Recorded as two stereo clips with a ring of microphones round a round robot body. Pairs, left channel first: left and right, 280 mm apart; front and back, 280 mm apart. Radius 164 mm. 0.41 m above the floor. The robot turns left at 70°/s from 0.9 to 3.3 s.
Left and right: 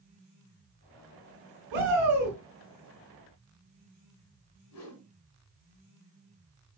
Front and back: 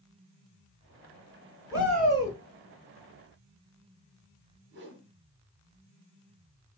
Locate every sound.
1.7 s a shout: 100° right, 3 m; by 2.4 s 145° right, 3 m
4.7 s a whoosh: 125° left, 1.8 m